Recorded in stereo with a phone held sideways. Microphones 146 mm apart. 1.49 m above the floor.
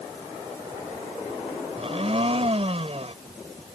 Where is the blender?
45° right (ahead or behind).